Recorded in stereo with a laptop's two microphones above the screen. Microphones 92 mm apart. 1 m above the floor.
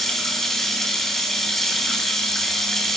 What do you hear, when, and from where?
0.0 s running water: 5° left (ahead or behind), 6 m